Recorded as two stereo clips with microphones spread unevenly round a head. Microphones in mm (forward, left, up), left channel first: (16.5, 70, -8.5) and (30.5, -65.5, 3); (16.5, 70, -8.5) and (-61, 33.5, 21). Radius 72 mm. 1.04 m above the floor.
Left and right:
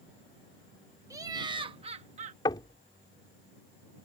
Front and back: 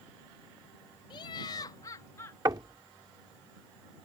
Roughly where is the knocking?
Behind.